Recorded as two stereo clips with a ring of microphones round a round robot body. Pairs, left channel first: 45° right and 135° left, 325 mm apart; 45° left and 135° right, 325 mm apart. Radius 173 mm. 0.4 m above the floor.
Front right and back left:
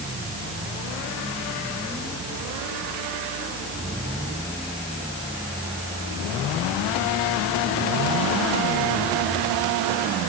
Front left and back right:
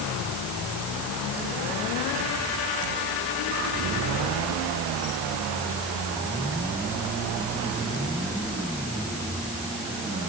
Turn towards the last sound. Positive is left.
No sound to turn to.